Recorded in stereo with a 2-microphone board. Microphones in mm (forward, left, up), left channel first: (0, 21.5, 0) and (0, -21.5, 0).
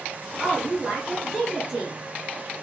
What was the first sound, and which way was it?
A woman speaking, 10° right (ahead or behind).